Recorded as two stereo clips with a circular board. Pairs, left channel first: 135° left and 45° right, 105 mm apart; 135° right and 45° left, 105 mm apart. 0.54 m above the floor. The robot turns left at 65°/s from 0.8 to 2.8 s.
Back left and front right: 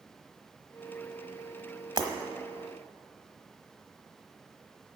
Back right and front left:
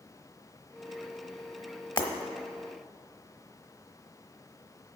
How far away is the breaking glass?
About 1.1 m.